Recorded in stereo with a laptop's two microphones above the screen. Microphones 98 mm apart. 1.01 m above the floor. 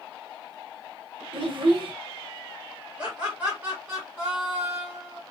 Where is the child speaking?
55° right (ahead or behind), 0.8 m.